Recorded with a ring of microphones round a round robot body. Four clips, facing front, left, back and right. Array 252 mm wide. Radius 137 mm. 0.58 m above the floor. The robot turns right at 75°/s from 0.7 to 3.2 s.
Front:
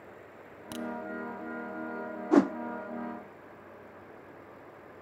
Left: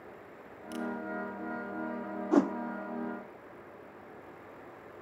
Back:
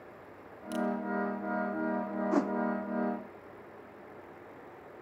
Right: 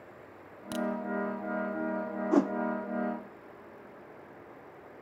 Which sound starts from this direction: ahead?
A whoosh, at 2.3 s.